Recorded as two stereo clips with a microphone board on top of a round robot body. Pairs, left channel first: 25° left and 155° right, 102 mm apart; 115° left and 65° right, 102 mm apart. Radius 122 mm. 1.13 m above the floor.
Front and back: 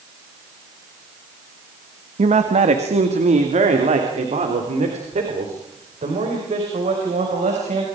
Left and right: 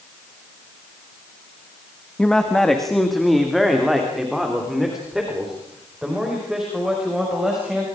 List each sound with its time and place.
2.2 s a man speaking: 165° right, 1.6 m; by 7.9 s 150° right, 6.5 m